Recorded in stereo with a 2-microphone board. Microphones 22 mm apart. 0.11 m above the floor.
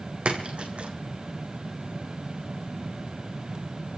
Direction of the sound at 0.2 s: 65° right (ahead or behind).